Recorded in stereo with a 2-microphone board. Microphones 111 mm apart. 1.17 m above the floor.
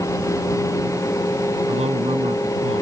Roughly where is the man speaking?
Right.